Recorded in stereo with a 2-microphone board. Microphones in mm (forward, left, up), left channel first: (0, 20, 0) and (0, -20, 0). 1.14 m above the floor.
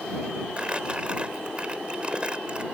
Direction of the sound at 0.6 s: 25° right (ahead or behind).